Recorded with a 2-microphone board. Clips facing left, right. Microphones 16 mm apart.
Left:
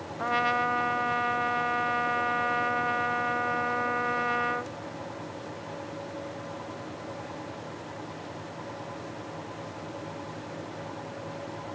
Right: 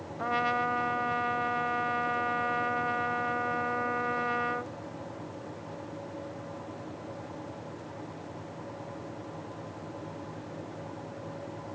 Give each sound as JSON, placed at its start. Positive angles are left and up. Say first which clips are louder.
{"t": 0.2, "sound": "a trumpet", "louder": "left 2 dB", "side_deg": 20}